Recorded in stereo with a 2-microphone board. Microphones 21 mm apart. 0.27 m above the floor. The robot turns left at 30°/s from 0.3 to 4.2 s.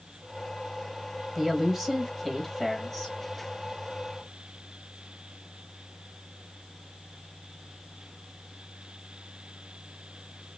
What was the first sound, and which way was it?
A woman speaking, 15° right (ahead or behind).